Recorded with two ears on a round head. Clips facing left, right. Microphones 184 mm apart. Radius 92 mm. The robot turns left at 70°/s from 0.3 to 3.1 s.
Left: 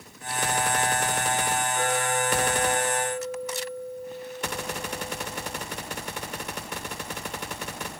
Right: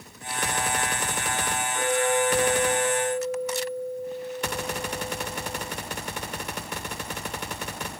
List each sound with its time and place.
1.7 s a clink: 10° right, 4.5 m; by 5.6 s 105° right, 4.5 m